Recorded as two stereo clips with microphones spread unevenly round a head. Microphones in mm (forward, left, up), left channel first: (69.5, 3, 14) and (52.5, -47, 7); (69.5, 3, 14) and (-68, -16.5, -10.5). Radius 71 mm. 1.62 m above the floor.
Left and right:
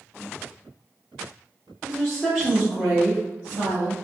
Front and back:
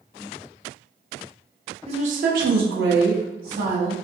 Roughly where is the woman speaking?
Behind left.